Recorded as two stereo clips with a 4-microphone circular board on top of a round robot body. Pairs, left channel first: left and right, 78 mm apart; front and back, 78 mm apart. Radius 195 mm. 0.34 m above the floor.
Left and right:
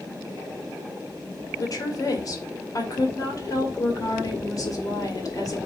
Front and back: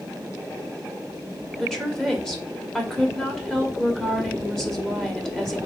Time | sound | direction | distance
1.6 | a woman speaking | 85° left | 1.8 m